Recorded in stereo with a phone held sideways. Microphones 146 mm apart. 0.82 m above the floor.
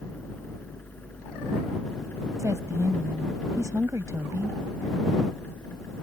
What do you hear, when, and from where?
0.0 s a fan: 10° left (ahead or behind)
2.4 s a woman speaking: 20° right (ahead or behind)